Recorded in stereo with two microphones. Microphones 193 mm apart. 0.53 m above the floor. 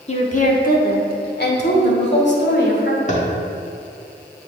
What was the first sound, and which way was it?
A woman speaking, 35° left (ahead or behind).